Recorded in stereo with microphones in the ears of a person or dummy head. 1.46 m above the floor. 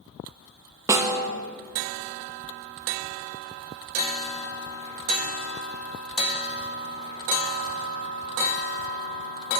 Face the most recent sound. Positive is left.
turn(degrees=-10)  # may be behind; listen again after turning